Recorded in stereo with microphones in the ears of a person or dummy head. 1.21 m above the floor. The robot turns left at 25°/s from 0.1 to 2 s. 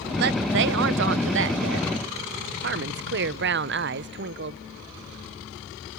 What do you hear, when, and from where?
0.2 s a woman speaking: 65° right, 0.9 m; by 4.6 s 110° right, 0.9 m